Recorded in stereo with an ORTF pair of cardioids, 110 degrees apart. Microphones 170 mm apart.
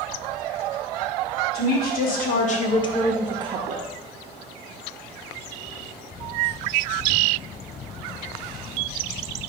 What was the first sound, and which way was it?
A woman speaking, 65° left.